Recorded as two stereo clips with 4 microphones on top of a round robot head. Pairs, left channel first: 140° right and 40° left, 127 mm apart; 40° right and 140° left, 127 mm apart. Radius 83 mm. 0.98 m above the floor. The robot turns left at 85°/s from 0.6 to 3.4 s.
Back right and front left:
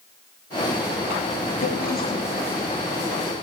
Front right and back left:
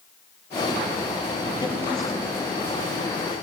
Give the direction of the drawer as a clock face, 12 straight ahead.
3 o'clock.